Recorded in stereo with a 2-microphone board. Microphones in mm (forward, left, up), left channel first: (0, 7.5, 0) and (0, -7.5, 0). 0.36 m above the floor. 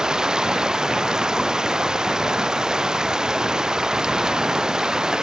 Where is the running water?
60° right (ahead or behind).